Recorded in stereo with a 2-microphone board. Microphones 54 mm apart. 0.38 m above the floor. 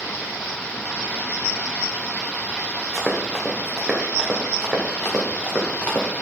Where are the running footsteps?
5° right (ahead or behind), 2 m; by 6.2 s 30° left (ahead or behind), 3 m.